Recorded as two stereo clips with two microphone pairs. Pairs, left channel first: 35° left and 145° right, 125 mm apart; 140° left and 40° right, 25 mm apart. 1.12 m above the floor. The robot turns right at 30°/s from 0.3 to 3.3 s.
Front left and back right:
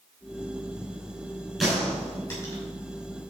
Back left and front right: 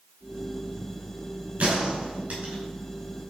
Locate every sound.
1.6 s a gunshot: 50° right, 5.5 m; by 2.6 s 20° right, 5.5 m